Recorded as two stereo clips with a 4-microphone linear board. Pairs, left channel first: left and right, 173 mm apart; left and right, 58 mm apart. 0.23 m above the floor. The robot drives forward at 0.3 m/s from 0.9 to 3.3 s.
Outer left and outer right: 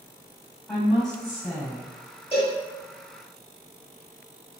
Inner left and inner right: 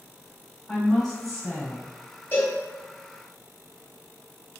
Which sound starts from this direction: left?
A cowbell, at 2.3 s.